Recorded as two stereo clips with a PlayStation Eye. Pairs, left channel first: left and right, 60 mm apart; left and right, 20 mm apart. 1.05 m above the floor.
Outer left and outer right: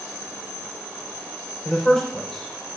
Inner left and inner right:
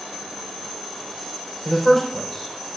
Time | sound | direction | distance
1.6 | a man speaking | 10° left (ahead or behind) | 4 m